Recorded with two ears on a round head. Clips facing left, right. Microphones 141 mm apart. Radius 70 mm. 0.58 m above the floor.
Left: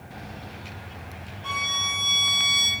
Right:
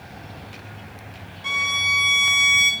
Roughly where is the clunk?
No clunk in this recording.